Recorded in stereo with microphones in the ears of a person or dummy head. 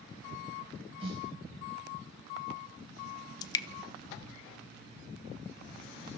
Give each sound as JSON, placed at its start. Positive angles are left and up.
{"t": 1.0, "sound": "a snare drum", "side_deg": -30, "distance_m": 5.0}
{"t": 3.4, "sound": "dripping", "side_deg": 20, "distance_m": 1.1}